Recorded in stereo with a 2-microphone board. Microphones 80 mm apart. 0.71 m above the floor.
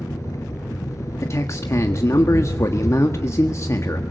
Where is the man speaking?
40° left (ahead or behind), 1.4 m.